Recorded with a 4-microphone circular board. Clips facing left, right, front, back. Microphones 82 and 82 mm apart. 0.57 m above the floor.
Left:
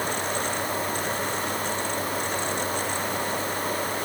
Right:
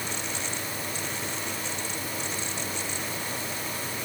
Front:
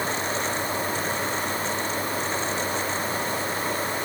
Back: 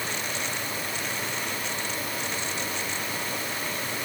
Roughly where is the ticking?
No ticking in this recording.